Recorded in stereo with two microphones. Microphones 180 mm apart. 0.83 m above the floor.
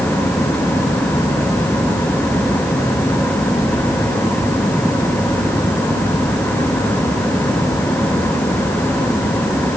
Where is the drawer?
No drawer in this recording.